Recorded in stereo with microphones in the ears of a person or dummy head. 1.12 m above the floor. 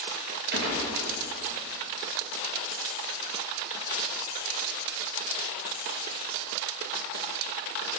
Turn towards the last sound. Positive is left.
turn(degrees=-50)  # may be behind; listen again after turning